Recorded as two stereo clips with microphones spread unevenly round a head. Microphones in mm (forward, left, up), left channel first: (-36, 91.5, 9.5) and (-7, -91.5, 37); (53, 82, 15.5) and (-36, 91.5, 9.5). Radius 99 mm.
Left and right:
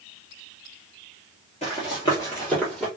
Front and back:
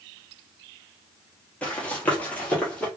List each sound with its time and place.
1.6 s running footsteps: 50° left, 1.5 m; by 2.9 s 20° right, 1.4 m